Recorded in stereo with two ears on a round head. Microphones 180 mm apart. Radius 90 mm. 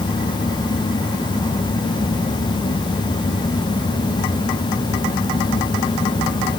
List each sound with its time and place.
Only background noise.